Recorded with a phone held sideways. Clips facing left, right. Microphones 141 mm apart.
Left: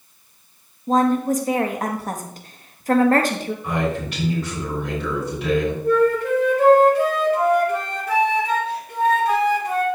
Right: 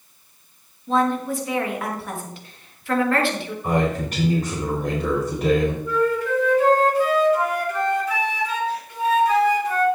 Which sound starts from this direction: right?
A man speaking, at 3.6 s.